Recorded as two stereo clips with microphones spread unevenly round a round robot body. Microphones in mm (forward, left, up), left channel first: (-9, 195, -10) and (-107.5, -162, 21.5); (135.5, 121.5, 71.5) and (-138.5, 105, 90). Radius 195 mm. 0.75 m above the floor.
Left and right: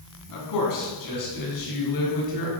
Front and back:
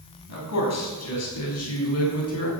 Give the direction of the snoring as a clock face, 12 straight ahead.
I don't hear snoring.